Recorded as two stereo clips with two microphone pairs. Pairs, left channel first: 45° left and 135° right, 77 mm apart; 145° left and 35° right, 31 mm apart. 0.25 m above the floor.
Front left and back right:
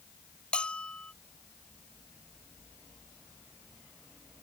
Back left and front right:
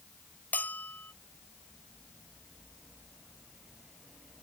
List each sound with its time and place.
0.5 s a bell: 125° left